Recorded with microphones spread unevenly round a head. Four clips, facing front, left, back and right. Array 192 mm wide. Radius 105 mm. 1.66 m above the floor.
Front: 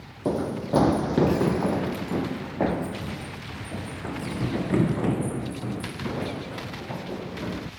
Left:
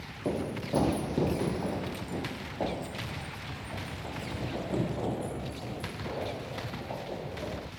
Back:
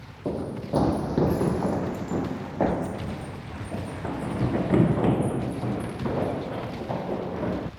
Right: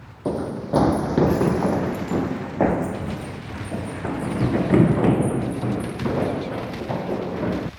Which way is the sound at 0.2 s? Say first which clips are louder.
Right 7 dB, front 4 dB; 20° right.